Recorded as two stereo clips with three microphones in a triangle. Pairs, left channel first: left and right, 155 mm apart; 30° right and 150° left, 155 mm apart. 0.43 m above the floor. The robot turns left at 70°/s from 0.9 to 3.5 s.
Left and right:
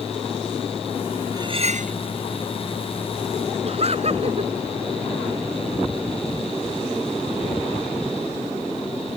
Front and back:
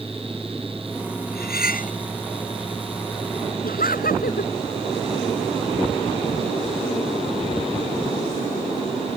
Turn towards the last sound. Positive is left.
turn(degrees=-45)